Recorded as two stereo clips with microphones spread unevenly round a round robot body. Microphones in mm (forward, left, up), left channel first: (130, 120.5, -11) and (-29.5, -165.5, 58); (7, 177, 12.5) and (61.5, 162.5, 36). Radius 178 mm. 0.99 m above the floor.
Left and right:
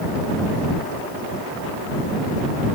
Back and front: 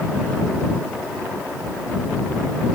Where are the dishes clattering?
I don't hear dishes clattering.